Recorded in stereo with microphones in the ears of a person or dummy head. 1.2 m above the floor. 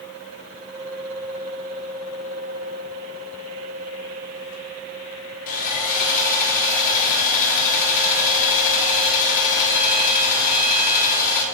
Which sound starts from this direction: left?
Sawing, at 5.5 s.